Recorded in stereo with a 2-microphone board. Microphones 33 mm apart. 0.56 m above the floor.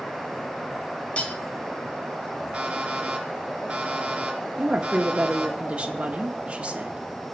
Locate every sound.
1.2 s cutlery clinking: 35° left (ahead or behind), 1.6 m
2.5 s an alarm clock: 25° right (ahead or behind), 3 m
4.6 s a woman speaking: 35° right (ahead or behind), 0.9 m